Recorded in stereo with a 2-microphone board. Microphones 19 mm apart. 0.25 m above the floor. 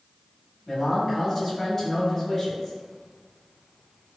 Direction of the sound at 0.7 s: 20° left (ahead or behind).